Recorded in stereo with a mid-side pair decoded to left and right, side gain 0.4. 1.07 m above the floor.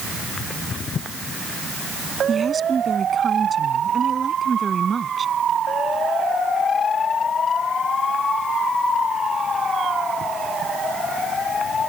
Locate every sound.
2.3 s a woman speaking: 35° right